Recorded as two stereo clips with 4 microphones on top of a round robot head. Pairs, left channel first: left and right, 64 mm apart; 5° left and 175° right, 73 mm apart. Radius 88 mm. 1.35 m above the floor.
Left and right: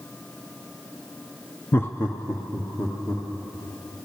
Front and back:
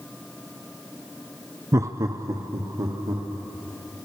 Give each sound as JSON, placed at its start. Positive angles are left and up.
{"t": 1.7, "sound": "laughter", "azimuth_deg": 145, "distance_m": 0.6}